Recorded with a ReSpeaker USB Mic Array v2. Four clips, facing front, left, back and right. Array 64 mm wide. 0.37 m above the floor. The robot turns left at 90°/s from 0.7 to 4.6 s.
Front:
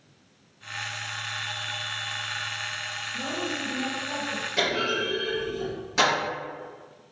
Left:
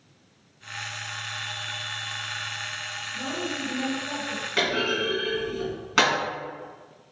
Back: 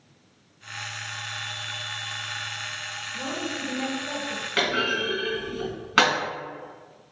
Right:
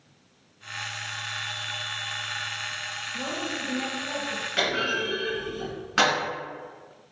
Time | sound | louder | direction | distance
3.1 | a woman speaking | left 1 dB, even | 105° right | 1.2 m
4.6 | a clunk | left 1 dB, back 2 dB | 165° left | 1.6 m